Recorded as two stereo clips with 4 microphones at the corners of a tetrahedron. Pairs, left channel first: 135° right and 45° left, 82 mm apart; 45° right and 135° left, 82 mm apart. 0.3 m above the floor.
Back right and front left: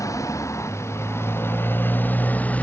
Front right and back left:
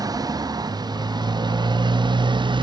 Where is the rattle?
No rattle in this recording.